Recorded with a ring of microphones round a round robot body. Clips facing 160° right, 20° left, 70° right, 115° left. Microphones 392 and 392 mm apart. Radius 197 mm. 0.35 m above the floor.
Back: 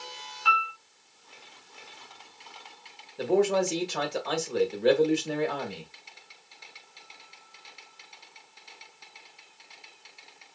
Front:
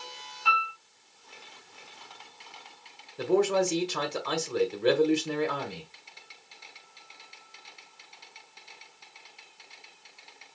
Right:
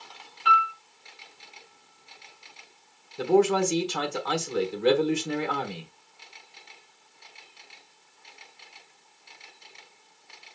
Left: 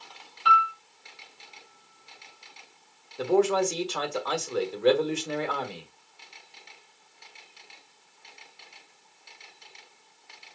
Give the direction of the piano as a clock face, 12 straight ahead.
7 o'clock.